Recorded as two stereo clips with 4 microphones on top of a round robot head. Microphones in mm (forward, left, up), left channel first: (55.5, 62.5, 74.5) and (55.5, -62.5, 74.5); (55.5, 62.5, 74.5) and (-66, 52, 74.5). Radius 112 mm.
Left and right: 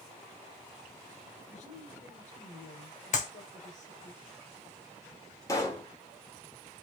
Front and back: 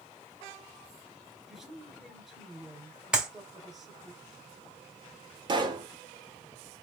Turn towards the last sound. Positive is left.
turn(degrees=150)